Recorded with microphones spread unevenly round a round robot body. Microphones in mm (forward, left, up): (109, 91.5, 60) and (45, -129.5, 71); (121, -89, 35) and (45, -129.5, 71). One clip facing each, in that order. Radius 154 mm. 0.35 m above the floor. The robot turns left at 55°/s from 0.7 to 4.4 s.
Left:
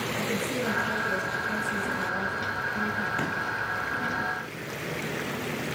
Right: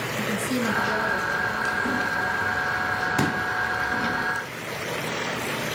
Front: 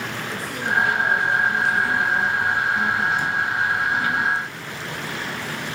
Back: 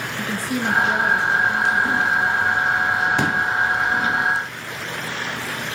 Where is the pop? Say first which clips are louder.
Right 11 dB, back 3 dB; 160° right, 1.3 m; by 3.4 s 170° right, 1.3 m.